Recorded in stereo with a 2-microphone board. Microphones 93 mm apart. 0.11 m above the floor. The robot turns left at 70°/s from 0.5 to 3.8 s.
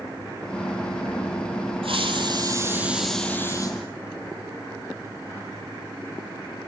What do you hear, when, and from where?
1.8 s a hiss: 95° right, 4.5 m; by 3.8 s 130° left, 4.5 m